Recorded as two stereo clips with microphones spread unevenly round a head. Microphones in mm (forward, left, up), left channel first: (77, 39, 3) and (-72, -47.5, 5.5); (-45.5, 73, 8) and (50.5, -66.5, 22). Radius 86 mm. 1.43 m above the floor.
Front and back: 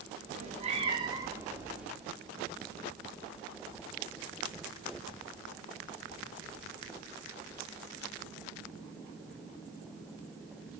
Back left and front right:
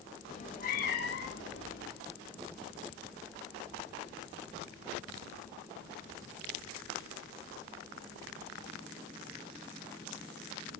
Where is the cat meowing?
175° left, 1.1 m; by 1.9 s 125° left, 1.4 m.